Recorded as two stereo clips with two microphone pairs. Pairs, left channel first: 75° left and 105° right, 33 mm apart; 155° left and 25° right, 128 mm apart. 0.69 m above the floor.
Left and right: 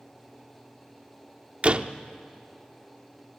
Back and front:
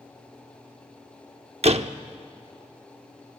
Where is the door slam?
55° right, 0.8 m.